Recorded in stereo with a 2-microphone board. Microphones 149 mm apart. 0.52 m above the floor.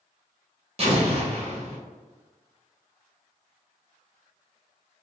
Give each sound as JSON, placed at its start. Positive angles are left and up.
{"t": 0.8, "sound": "an explosion", "side_deg": -40, "distance_m": 0.7}